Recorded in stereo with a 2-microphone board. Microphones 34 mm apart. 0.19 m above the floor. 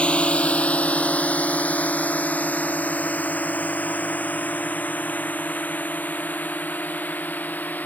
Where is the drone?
35° left (ahead or behind); by 7.9 s 60° left (ahead or behind).